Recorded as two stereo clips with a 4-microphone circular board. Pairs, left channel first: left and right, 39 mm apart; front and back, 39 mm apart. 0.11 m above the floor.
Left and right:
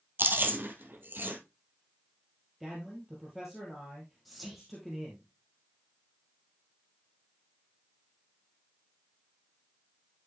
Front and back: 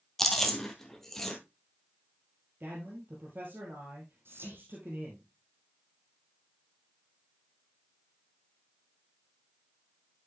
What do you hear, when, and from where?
0.2 s chewing: 80° right, 1.5 m
2.6 s a man speaking: 175° right, 2.5 m
4.2 s whispering: straight behind, 3.5 m